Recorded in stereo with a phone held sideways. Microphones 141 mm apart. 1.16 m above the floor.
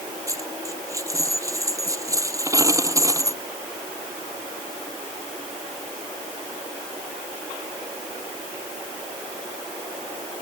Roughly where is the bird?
No bird in this recording.